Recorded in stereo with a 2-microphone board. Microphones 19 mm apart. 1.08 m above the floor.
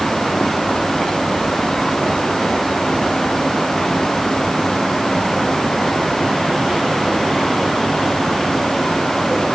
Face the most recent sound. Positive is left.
No sound to turn to.